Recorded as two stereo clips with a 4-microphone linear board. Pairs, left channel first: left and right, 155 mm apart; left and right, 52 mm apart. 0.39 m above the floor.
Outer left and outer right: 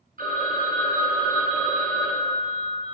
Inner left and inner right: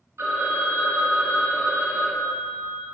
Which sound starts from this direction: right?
A phone ringing, at 0.2 s.